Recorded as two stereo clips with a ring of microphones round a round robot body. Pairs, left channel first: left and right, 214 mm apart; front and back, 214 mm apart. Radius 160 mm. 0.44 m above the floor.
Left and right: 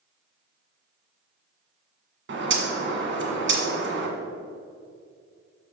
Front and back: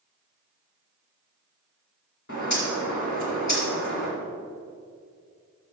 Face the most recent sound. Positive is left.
turn(degrees=-55)